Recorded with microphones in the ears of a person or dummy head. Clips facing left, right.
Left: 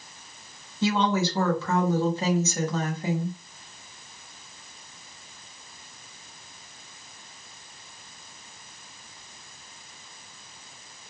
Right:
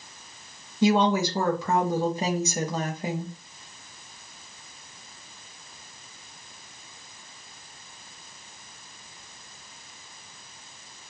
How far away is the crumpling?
I don't hear crumpling.